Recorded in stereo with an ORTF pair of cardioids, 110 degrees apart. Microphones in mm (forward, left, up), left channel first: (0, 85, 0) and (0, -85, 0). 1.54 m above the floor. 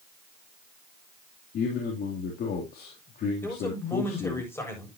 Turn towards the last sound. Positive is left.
turn(degrees=15)